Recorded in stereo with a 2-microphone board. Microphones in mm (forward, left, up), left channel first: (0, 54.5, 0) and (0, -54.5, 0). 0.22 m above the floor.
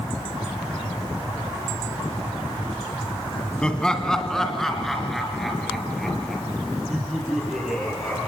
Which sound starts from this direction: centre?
Laughter, at 3.6 s.